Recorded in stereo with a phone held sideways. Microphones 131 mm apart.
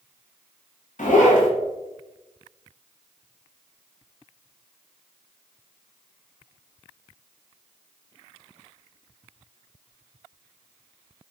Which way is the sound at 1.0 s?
75° left (ahead or behind).